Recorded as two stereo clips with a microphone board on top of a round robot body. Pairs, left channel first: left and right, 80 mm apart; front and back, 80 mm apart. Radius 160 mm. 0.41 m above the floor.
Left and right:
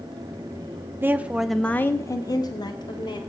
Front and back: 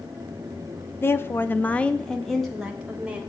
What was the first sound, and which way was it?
A woman speaking, 45° right.